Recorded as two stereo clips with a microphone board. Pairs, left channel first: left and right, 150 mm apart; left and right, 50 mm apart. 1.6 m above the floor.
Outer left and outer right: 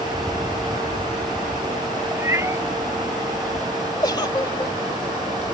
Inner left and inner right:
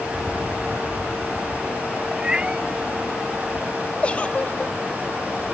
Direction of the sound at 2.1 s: 20° right (ahead or behind).